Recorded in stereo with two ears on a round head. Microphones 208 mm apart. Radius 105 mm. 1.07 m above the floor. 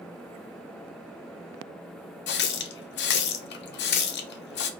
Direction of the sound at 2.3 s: 50° left (ahead or behind).